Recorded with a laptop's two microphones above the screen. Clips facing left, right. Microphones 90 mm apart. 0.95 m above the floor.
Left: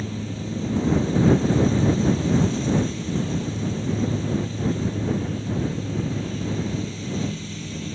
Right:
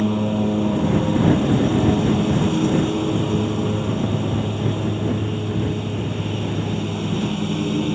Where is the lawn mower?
60° right (ahead or behind).